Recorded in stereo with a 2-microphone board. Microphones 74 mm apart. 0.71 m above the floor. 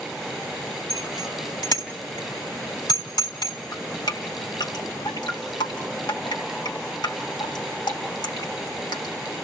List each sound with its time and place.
0.9 s a bicycle bell: 75° left (ahead or behind), 3.5 m
3.7 s dripping: 90° left, 2 m